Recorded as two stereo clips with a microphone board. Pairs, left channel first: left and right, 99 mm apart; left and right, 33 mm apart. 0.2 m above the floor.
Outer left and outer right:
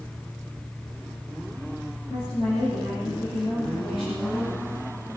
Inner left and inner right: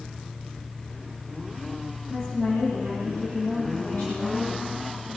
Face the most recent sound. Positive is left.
turn(degrees=55)  # may be behind; listen again after turning